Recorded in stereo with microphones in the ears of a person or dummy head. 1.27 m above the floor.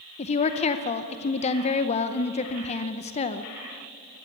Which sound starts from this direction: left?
A woman speaking, at 0.2 s.